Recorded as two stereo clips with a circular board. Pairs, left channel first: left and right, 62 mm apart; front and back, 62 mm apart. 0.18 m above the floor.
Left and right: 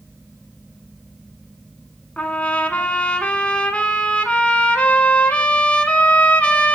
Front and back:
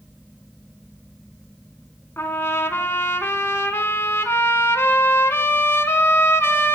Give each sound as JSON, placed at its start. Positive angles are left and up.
{"t": 2.2, "sound": "a trumpet", "azimuth_deg": 30, "distance_m": 0.7}